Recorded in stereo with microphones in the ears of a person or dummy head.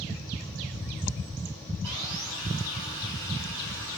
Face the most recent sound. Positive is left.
turn(degrees=-75)  # may be behind; listen again after turning